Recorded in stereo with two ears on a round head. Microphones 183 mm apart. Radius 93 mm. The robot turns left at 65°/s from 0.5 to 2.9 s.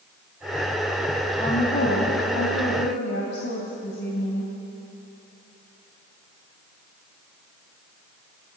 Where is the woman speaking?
155° left, 3 m; by 4.5 s 55° left, 3 m.